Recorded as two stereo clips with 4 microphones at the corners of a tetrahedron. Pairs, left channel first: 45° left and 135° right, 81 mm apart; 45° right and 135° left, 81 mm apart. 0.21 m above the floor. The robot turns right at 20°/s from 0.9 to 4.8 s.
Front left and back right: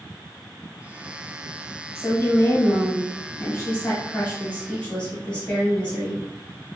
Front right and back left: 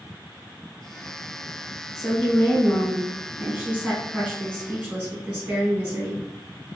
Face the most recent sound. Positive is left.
turn(degrees=100)